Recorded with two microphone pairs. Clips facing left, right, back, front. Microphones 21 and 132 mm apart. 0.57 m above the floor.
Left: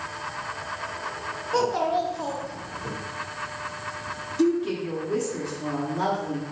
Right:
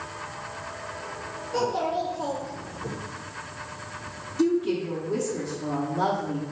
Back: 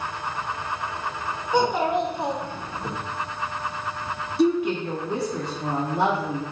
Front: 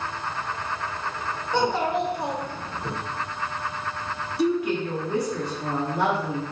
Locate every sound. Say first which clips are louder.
1.5 s a child speaking: left 3 dB, back 2 dB; 115° left, 1.0 m; by 2.9 s 145° right, 0.9 m
4.4 s a woman speaking: even, back 2 dB; 150° left, 0.7 m